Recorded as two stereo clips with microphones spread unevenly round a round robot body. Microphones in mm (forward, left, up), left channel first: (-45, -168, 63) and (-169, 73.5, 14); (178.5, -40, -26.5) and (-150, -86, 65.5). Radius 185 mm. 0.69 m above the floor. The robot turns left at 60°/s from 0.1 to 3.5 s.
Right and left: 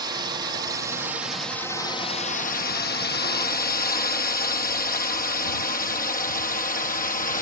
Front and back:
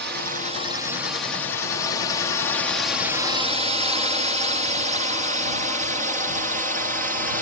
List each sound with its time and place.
0.0 s a drone: 130° left; by 7.4 s 105° right